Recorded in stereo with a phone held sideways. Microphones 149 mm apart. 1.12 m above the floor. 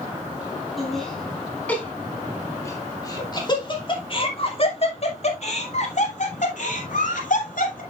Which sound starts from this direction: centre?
Laughter, at 0.8 s.